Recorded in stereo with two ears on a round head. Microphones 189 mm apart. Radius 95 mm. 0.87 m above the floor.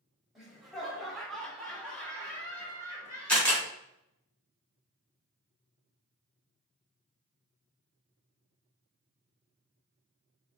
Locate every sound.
0.3 s laughter: centre (ahead or behind), 0.9 m; by 3.6 s 5° left (ahead or behind), 1.0 m
3.3 s a camera shutter: 5° left (ahead or behind), 0.8 m